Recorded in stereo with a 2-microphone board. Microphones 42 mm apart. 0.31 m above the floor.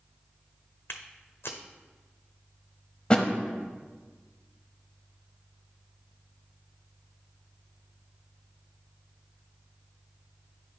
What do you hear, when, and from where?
0.9 s footsteps: 75° left (ahead or behind), 1.0 m
3.1 s a thud: 25° left (ahead or behind), 0.7 m